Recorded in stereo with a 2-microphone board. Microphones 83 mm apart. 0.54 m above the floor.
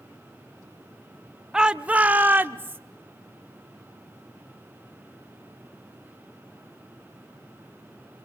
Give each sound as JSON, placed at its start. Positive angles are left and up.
{"t": 1.5, "sound": "a shout", "side_deg": -10, "distance_m": 0.6}